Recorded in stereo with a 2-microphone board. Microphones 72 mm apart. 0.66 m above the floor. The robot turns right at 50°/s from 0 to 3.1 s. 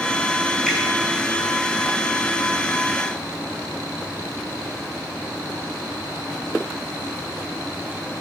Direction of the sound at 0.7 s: 5° left (ahead or behind).